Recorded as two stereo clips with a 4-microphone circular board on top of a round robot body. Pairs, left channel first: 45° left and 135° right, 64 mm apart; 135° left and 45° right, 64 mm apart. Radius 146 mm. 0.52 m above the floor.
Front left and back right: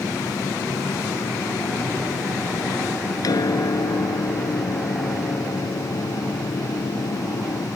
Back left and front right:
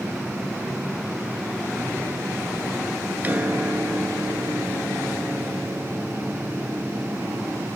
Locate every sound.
3.2 s a piano: 20° left